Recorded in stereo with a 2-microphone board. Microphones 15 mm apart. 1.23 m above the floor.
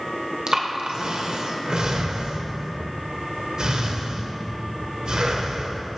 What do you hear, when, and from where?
0.5 s breathing: 55° right (ahead or behind), 0.8 m